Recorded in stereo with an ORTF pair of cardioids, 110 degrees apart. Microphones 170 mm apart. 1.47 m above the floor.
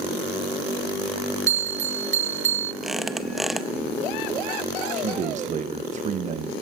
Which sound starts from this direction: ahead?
A squeak, at 2.8 s.